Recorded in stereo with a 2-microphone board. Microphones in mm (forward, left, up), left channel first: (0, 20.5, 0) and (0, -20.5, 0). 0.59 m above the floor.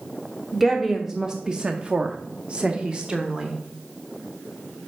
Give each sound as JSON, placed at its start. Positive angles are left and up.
{"t": 0.5, "sound": "a woman speaking", "side_deg": -5, "distance_m": 1.1}